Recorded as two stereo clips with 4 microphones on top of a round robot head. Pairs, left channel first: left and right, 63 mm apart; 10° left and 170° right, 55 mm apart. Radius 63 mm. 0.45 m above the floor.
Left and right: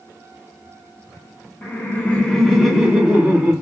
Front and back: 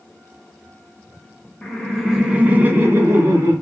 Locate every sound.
1.6 s laughter: 80° left, 0.8 m; by 3.5 s 155° right, 1.2 m